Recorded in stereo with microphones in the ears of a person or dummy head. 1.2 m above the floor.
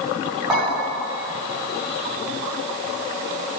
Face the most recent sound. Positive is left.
turn(degrees=-10)  # may be behind; listen again after turning